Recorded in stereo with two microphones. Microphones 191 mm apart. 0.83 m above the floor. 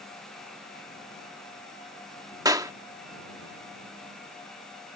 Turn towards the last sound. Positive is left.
turn(degrees=-20)  # may be behind; listen again after turning